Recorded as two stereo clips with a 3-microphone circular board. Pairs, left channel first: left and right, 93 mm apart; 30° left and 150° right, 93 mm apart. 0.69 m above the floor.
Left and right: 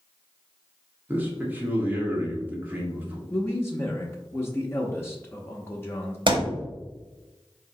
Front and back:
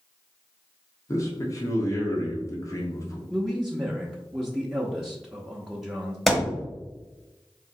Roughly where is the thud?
Ahead right.